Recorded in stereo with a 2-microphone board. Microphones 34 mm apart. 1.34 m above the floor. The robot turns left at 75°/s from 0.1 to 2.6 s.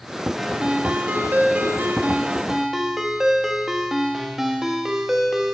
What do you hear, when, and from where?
0.4 s a ringtone: straight ahead, 1.2 m; by 5.5 s 170° right, 1.2 m